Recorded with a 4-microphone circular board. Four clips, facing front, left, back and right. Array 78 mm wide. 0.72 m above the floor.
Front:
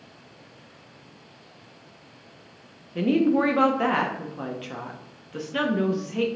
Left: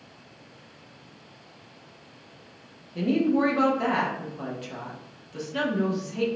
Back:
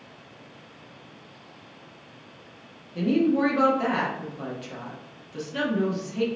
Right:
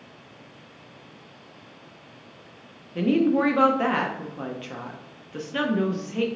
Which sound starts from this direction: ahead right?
A woman speaking, at 3.0 s.